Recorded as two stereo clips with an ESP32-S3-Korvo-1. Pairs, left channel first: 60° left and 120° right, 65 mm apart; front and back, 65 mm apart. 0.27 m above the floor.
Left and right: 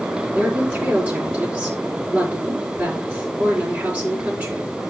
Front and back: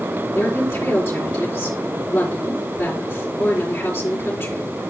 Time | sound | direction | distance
0.3 | a woman speaking | 60° right | 4 m